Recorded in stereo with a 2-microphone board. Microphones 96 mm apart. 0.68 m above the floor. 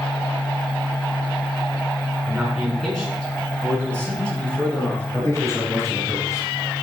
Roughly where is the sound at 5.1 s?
Left.